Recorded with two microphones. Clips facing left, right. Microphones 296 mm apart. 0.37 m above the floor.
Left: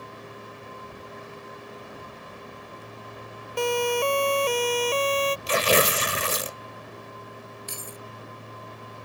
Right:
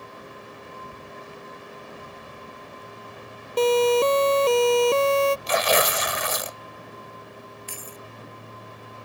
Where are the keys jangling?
45° left (ahead or behind).